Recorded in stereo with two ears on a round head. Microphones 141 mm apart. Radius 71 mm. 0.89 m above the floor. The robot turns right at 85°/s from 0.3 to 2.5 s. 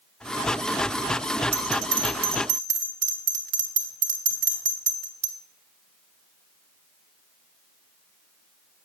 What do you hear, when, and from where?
1.5 s a bell: 35° right (ahead or behind), 1.6 m; by 5.3 s 55° right (ahead or behind), 1.6 m